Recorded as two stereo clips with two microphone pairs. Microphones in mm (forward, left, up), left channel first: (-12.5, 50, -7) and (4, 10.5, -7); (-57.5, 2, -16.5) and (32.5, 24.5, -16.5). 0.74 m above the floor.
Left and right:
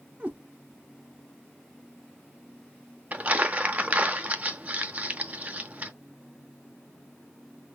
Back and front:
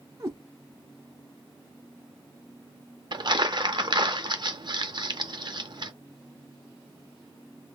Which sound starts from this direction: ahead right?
A cat meowing, at 0.2 s.